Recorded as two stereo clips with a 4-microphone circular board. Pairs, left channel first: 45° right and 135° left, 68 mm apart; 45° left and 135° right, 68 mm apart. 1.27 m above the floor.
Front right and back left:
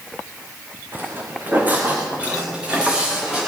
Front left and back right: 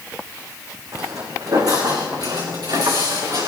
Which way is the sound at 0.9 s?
170° right.